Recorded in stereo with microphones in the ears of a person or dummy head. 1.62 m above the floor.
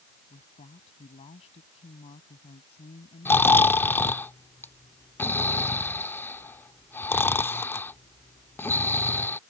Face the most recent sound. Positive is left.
turn(degrees=5)  # may be behind; listen again after turning